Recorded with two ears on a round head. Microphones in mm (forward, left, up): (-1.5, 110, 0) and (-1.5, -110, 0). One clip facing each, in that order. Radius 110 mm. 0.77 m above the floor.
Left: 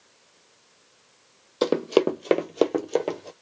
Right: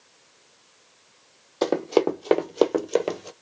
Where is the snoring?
I don't hear snoring.